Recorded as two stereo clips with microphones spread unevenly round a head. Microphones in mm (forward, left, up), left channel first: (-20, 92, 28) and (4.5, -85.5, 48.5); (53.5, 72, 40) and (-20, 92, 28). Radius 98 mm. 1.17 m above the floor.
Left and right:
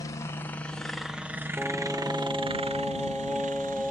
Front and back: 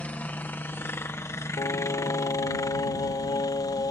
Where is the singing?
5° left.